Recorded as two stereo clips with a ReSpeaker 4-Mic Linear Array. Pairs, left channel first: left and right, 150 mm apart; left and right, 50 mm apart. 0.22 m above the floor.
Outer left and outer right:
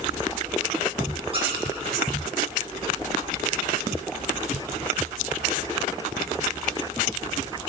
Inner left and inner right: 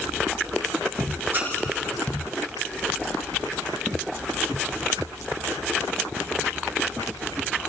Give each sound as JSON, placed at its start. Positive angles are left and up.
{"t": 1.3, "sound": "a squeak", "side_deg": -40, "distance_m": 8.0}